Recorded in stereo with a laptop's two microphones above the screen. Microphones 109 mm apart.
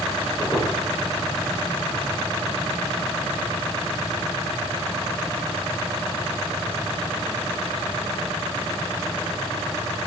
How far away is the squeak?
About 7.5 m.